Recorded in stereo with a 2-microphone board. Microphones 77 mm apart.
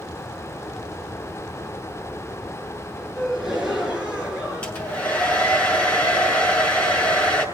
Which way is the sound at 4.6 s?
15° left (ahead or behind).